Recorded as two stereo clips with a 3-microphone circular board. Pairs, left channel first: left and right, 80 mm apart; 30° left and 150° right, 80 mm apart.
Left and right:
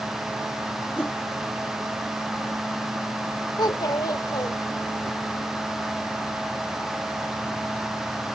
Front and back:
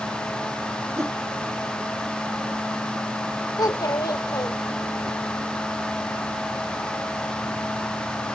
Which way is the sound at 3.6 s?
60° left.